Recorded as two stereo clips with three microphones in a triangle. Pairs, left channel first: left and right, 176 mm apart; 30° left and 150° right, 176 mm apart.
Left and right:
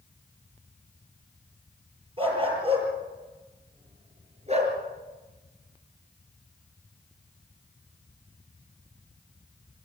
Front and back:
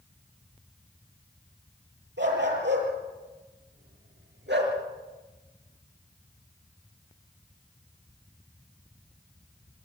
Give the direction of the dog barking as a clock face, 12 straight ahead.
5 o'clock.